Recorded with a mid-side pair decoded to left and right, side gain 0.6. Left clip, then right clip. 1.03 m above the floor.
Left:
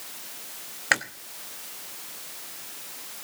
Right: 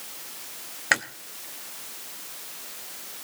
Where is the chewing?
Straight ahead, 1.1 m.